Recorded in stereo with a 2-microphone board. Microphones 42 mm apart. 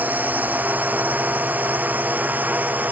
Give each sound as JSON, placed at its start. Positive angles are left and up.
{"t": 0.0, "sound": "a drone", "side_deg": -40}